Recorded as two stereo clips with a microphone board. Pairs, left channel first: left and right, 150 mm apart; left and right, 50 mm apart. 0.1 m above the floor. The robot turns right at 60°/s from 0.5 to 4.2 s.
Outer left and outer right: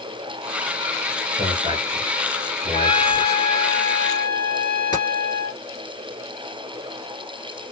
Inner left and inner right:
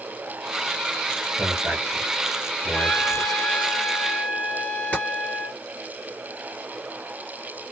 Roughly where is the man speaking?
Right.